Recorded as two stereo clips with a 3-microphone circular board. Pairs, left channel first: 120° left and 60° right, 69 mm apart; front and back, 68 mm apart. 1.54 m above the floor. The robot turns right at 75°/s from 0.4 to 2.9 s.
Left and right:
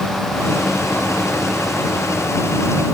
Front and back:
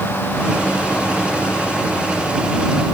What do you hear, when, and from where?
Only background noise.